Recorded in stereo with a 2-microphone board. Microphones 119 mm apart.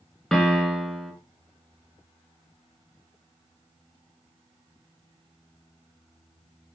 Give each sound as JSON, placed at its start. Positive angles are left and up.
{"t": 0.3, "sound": "a piano", "side_deg": 5, "distance_m": 0.8}